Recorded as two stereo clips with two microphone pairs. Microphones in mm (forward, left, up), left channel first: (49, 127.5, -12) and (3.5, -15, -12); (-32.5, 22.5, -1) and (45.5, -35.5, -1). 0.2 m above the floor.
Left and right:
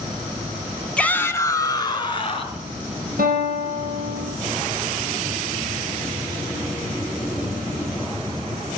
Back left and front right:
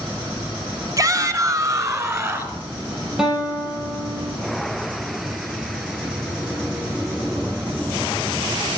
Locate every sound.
1.0 s a shout: straight ahead, 1.3 m; by 2.6 s 25° left, 2.5 m
3.2 s a guitar: 120° right, 5 m